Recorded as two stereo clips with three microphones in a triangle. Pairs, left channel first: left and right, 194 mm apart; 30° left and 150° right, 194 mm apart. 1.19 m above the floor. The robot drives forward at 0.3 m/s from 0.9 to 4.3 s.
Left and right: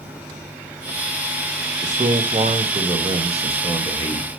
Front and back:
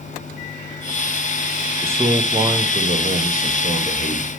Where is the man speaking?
75° right, 0.5 m; by 4.3 s 155° right, 0.8 m.